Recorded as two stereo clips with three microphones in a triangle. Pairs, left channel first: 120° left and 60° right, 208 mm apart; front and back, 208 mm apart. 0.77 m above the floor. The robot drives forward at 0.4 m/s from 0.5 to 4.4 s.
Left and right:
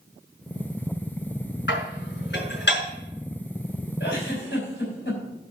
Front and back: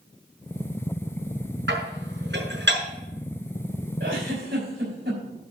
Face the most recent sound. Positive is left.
turn(degrees=155)